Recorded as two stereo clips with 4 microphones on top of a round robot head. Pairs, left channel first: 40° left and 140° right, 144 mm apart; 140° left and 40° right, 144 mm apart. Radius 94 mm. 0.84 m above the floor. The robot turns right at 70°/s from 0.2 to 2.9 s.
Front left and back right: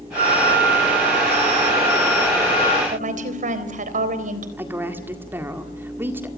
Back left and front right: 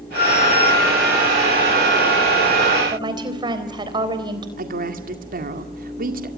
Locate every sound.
0.1 s a trumpet: 175° left, 2.5 m; by 2.8 s straight ahead, 2.5 m
2.9 s a woman speaking: 105° right, 4 m; by 4.5 s 100° right, 4 m
4.6 s a woman speaking: 60° right, 1.9 m